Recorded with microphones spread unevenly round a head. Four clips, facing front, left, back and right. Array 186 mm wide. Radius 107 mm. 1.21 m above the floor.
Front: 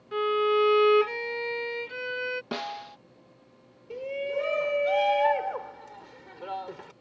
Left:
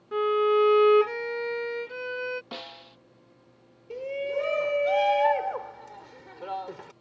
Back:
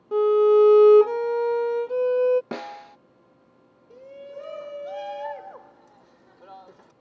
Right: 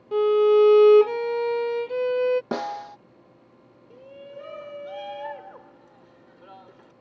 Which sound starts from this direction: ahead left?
A shout, at 3.9 s.